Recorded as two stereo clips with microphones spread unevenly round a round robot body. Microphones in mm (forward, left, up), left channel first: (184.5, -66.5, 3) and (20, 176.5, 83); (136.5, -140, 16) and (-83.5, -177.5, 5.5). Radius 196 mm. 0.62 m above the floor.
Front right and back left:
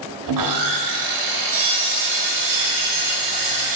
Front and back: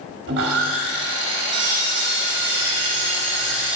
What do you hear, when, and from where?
0.3 s sawing: 155° left, 0.8 m